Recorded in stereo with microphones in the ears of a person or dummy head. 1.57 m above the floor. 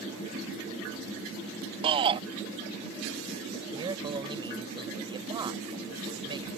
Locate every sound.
1.8 s a shout: 30° right (ahead or behind)
3.7 s a man speaking: 25° right (ahead or behind)